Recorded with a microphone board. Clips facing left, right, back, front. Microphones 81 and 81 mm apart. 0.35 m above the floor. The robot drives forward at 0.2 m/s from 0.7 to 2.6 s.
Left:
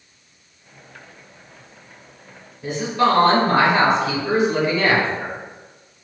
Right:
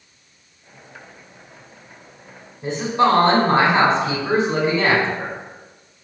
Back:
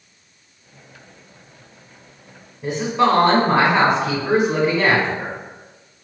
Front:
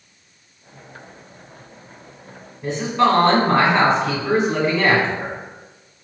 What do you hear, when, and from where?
2.6 s a woman speaking: 110° right, 0.9 m